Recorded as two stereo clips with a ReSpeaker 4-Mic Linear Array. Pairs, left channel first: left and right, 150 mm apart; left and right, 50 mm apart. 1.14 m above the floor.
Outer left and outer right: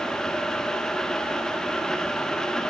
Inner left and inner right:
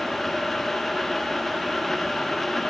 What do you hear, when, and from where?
Only background noise.